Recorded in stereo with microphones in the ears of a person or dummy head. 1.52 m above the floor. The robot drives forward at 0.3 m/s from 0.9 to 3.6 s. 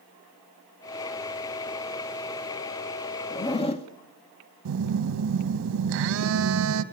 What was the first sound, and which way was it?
A zipper, 35° left (ahead or behind).